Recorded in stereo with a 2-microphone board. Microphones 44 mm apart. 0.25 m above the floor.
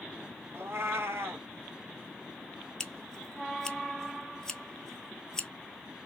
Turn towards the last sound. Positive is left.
turn(degrees=15)  # may be behind; listen again after turning